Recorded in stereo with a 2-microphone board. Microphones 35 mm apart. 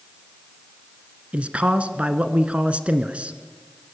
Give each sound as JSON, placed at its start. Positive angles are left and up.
{"t": 1.3, "sound": "a man speaking", "side_deg": -40, "distance_m": 1.3}